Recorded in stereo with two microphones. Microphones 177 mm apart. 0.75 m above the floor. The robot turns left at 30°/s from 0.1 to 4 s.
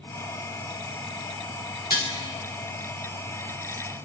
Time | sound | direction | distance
1.9 | dishes clattering | 60° left (ahead or behind) | 1.1 m